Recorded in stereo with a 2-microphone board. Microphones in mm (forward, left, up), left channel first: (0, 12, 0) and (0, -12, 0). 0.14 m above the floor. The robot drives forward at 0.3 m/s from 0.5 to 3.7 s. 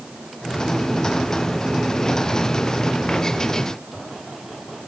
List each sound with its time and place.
Only background noise.